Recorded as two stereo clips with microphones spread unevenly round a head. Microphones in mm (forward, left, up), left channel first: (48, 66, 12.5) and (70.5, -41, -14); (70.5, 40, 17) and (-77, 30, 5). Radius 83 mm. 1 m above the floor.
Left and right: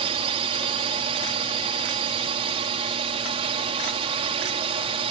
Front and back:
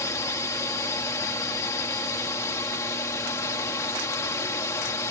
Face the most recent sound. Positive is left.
turn(degrees=-70)